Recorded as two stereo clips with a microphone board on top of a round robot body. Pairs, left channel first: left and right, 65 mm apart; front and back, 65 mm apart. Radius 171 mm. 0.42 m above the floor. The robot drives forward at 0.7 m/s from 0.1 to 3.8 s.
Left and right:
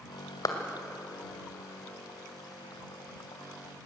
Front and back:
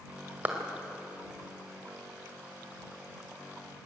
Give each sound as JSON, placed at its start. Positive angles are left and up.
{"t": 0.5, "sound": "a clap", "azimuth_deg": 115, "distance_m": 2.0}